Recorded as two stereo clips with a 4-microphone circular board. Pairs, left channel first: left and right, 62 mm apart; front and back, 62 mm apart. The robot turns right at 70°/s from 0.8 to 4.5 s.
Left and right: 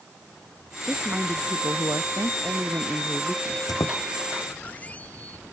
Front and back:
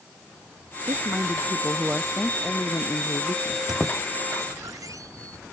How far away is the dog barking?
I don't hear a dog barking.